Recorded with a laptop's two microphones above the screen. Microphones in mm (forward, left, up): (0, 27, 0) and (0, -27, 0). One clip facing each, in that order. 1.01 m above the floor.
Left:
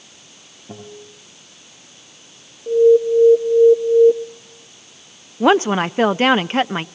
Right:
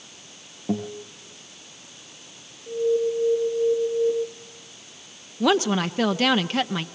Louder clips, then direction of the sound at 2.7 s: Left 10 dB; 75° left (ahead or behind).